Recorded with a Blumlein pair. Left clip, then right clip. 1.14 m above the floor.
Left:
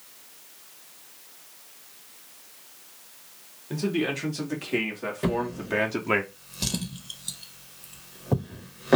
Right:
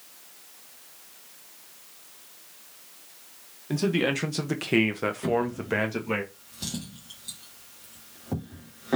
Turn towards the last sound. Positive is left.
turn(degrees=25)